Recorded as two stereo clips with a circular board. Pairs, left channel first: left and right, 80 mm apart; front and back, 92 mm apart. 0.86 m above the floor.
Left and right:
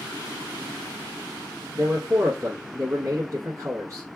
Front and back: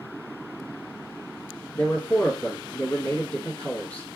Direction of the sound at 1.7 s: 65° right.